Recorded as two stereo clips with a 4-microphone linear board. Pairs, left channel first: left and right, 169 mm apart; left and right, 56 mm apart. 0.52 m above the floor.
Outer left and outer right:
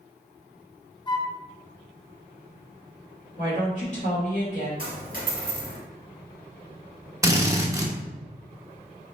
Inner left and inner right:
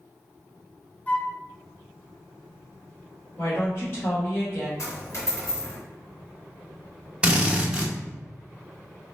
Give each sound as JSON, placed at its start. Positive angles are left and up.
{"t": 1.1, "sound": "a flute", "side_deg": 25, "distance_m": 0.6}
{"t": 3.4, "sound": "a woman speaking", "side_deg": 45, "distance_m": 1.9}
{"t": 4.8, "sound": "a dropped coin", "side_deg": 60, "distance_m": 1.8}
{"t": 7.2, "sound": "a drill", "side_deg": -20, "distance_m": 0.8}